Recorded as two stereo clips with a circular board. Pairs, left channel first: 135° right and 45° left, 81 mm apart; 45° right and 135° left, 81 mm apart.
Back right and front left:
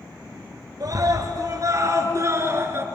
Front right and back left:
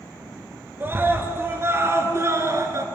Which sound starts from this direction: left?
A scream, at 0.8 s.